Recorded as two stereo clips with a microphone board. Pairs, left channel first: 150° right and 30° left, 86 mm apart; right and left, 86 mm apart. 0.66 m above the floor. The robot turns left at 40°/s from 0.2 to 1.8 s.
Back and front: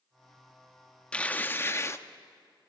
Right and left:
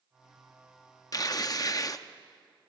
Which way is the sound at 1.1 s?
80° right.